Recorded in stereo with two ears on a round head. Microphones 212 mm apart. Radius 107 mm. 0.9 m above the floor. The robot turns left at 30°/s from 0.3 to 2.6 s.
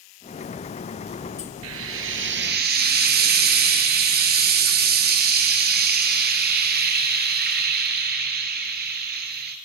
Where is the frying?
70° right (ahead or behind), 2.5 m; by 9.6 s 45° right (ahead or behind), 2.5 m.